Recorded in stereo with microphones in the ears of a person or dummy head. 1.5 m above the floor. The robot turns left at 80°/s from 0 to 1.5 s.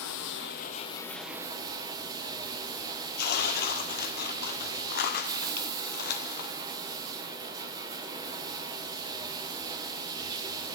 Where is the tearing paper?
50° left (ahead or behind), 0.8 m.